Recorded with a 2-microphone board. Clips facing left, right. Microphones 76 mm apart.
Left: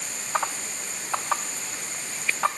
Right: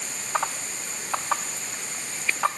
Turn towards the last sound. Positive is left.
No sound to turn to.